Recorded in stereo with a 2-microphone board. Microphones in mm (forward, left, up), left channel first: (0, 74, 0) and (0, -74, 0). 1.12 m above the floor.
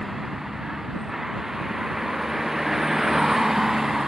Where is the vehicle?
Centre (ahead or behind).